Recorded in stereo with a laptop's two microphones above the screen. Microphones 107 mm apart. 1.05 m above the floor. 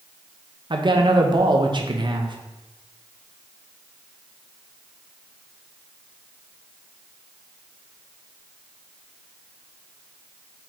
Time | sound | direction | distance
0.7 | a man speaking | 50° right (ahead or behind) | 0.7 m